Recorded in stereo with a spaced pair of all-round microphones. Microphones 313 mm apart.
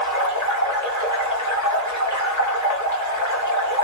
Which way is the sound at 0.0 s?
75° left (ahead or behind).